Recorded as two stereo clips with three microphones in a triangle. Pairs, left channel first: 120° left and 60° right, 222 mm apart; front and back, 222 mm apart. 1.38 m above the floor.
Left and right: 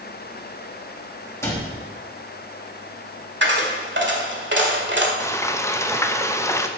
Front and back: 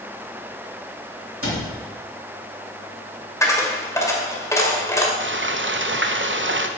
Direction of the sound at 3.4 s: 75° right.